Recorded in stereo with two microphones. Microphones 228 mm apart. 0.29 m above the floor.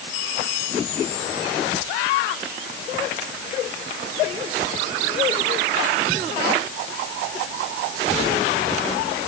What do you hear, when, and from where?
Only background noise.